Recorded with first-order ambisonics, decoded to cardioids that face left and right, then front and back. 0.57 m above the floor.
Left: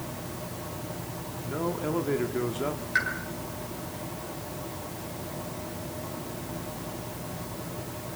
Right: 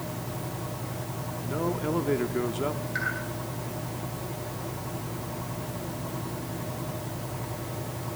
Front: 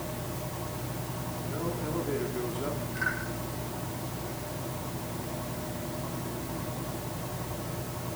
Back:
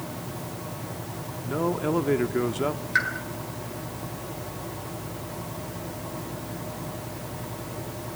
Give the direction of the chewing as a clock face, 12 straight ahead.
I don't hear chewing.